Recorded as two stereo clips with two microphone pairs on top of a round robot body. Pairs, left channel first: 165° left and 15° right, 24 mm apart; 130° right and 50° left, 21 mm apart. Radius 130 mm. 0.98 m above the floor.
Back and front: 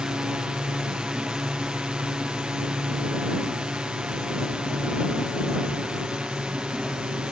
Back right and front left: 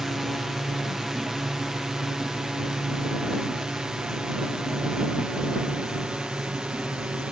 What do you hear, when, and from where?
0.0 s a drone: 40° right; by 7.3 s 20° left